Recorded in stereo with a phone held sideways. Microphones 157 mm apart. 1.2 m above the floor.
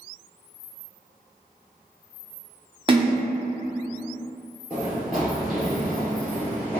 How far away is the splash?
About 0.6 m.